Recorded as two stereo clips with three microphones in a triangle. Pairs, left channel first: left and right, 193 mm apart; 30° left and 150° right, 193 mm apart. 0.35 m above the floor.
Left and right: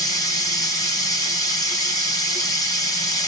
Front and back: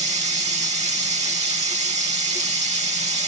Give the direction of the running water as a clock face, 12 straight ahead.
7 o'clock.